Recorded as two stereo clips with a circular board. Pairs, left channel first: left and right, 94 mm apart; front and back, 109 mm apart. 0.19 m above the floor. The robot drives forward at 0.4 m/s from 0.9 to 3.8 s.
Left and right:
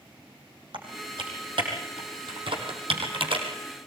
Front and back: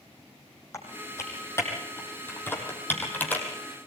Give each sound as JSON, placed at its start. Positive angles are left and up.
{"t": 0.7, "sound": "typing on a keyboard", "azimuth_deg": -65, "distance_m": 5.0}